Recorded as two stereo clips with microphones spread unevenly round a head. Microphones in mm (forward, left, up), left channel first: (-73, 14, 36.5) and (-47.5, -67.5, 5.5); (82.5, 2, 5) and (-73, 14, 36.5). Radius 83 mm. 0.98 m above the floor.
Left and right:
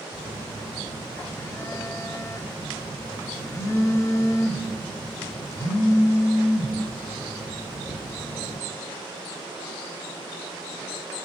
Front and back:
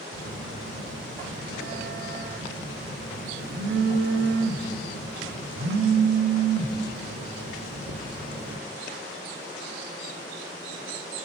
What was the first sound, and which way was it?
A phone buzzing, 160° left.